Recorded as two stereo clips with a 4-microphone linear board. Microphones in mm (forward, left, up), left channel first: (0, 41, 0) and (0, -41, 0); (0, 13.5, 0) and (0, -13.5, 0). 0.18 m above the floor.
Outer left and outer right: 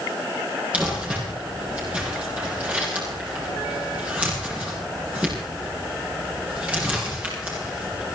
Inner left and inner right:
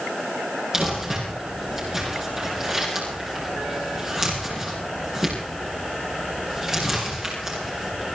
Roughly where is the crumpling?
Centre.